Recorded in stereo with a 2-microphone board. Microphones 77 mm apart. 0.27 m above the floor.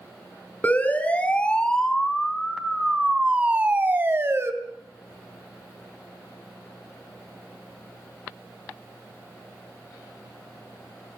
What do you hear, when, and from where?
0.6 s a siren: 20° left (ahead or behind), 4 m; by 4.5 s 35° right (ahead or behind), 2.5 m